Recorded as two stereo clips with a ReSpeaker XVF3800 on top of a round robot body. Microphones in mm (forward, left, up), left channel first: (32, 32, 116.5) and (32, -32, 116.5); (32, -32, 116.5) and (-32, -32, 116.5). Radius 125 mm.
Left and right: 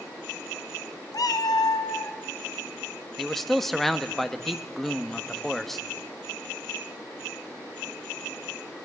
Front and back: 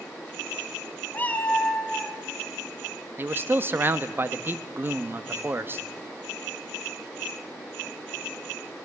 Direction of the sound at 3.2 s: 175° left.